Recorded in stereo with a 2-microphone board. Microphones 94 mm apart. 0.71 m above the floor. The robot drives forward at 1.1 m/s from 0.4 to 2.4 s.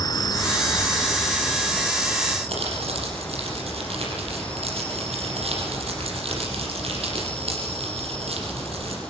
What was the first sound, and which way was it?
An insect, 40° left (ahead or behind).